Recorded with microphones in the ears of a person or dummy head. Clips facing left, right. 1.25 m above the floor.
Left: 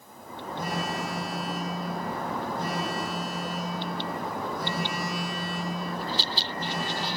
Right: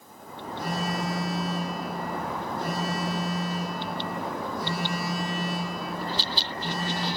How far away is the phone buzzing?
About 6.5 m.